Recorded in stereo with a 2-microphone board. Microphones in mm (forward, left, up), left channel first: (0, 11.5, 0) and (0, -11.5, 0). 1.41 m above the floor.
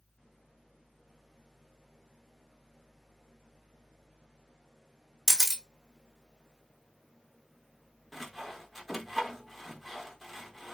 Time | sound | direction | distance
5.3 | a camera shutter | 15° right (ahead or behind) | 0.7 m
8.1 | sawing | 5° right (ahead or behind) | 0.7 m